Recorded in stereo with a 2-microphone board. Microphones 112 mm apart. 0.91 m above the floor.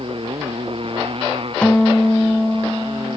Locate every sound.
0.0 s a motorcycle: 55° right (ahead or behind)
1.6 s a guitar: 10° left (ahead or behind)